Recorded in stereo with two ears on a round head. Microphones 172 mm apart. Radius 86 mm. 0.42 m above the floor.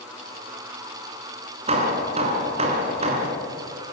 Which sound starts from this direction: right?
Hammering, at 1.7 s.